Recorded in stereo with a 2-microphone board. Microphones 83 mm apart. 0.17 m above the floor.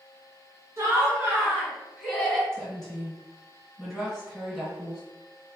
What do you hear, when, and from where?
0.8 s laughter: 35° right (ahead or behind), 1.2 m; by 2.4 s centre (ahead or behind), 1.5 m
2.5 s a woman speaking: centre (ahead or behind), 1.7 m